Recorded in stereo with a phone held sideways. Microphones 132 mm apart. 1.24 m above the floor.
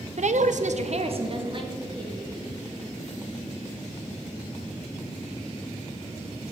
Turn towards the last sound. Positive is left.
turn(degrees=-35)  # may be behind; listen again after turning